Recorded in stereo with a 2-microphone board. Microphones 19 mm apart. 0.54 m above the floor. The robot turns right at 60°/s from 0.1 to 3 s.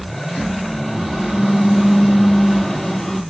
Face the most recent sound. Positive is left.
turn(degrees=20)